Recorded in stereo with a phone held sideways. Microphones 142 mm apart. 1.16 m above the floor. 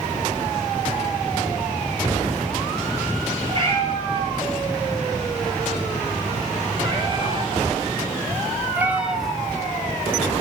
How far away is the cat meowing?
About 6.5 m.